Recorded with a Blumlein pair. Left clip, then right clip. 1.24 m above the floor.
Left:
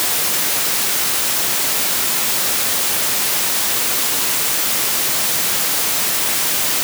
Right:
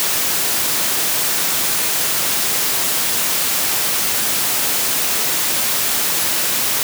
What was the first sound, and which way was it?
Only background noise.